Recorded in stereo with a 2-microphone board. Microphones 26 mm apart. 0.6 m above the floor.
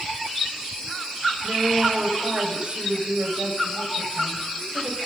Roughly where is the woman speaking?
Right.